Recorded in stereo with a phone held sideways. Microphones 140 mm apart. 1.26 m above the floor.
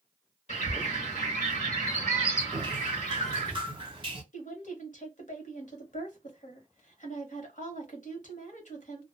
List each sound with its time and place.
0.5 s a bird: 55° left (ahead or behind), 1.1 m
2.5 s dripping: 35° right (ahead or behind), 0.7 m
4.3 s a woman speaking: 65° left (ahead or behind), 1.2 m